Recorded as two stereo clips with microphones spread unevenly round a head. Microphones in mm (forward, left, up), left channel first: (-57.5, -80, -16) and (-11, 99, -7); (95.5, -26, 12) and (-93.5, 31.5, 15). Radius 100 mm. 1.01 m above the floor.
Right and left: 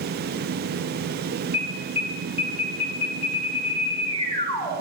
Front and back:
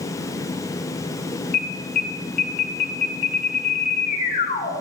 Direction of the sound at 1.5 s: 50° right.